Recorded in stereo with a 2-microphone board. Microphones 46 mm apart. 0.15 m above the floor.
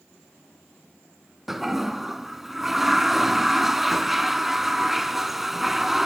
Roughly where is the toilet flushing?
Centre.